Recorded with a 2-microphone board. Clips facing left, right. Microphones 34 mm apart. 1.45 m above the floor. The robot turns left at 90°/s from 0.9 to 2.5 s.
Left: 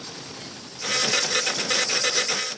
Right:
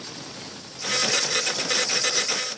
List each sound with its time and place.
Only background noise.